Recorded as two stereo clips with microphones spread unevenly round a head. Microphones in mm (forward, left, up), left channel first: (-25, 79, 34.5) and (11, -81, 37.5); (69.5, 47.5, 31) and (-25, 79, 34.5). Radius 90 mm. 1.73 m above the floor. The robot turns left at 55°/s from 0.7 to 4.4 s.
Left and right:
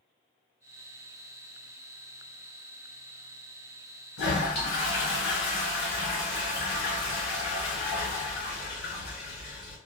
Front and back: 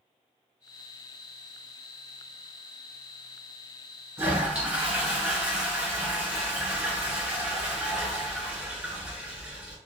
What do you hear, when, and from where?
4.2 s a toilet flushing: 95° left, 2.0 m; by 9.8 s 80° left, 2.0 m